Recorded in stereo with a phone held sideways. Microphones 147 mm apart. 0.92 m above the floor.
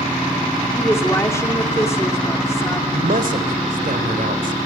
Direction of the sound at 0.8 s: 20° left (ahead or behind).